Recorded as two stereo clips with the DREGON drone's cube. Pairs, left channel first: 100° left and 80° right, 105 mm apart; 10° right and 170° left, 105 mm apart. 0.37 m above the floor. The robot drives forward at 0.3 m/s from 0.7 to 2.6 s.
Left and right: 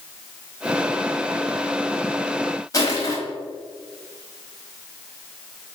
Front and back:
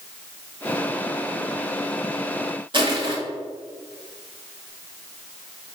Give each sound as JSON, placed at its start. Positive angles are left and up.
{"t": 2.7, "sound": "crushing", "azimuth_deg": 150, "distance_m": 1.2}